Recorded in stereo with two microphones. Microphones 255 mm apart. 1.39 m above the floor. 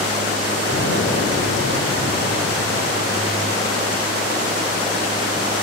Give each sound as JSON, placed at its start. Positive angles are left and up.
{"t": 0.7, "sound": "an explosion", "side_deg": 55, "distance_m": 6.0}